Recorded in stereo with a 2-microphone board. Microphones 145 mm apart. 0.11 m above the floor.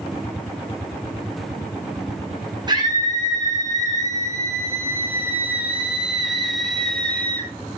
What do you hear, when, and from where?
2.7 s a scream: 30° right (ahead or behind), 6 m; by 7.5 s 10° left (ahead or behind), 3 m